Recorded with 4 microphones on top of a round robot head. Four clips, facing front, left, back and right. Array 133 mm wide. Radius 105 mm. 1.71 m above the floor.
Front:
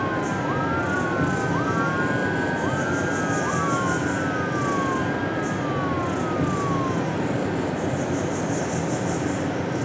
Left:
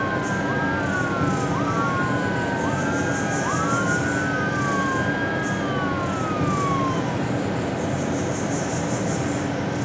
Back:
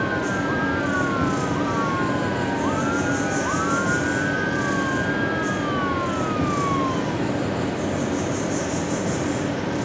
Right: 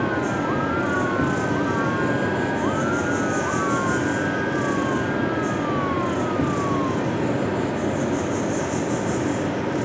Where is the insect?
110° right, 1.6 m.